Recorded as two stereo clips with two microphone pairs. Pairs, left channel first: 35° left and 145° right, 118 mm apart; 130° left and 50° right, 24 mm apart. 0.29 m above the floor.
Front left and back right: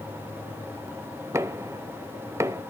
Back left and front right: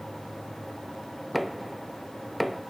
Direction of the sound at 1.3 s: 130° right.